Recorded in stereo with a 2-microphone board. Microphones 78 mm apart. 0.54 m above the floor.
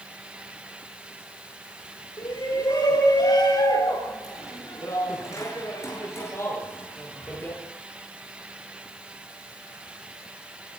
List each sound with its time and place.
2.2 s a shout: 75° left (ahead or behind), 6.5 m; by 7.6 s 25° left (ahead or behind), 9.5 m